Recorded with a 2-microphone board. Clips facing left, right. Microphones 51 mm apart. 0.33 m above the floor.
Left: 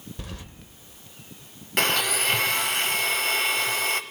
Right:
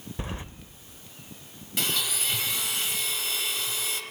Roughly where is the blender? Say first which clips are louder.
Left 7 dB; left.